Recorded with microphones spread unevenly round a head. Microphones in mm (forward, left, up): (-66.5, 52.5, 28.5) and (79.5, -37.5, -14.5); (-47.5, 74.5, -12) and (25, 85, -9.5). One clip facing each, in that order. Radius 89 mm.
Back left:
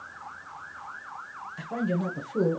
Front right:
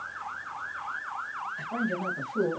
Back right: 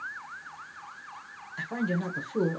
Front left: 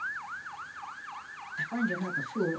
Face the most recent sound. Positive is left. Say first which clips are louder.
# back left 3 dB, back right 1 dB
turn(degrees=155)